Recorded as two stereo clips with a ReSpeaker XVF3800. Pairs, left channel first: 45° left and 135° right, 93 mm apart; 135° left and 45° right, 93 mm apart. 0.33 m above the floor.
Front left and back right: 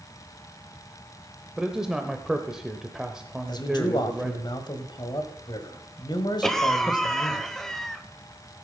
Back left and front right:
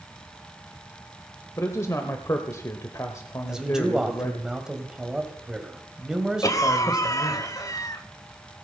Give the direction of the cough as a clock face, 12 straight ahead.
8 o'clock.